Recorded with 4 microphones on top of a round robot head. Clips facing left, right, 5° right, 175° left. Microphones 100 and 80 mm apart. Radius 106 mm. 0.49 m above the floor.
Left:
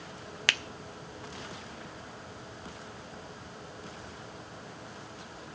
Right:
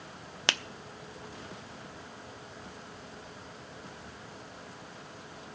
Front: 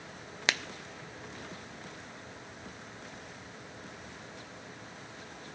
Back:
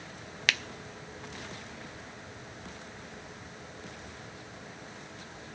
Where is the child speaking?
I don't hear a child speaking.